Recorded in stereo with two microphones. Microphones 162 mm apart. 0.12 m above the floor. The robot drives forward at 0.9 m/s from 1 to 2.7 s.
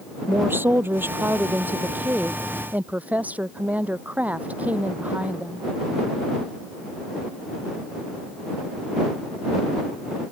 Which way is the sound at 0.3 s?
15° right (ahead or behind).